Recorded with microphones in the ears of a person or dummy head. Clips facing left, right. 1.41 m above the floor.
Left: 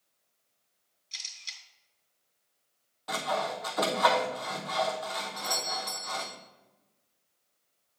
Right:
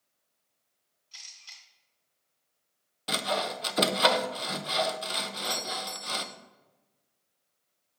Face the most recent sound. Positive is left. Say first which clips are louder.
# even
turn(degrees=10)  # may be behind; listen again after turning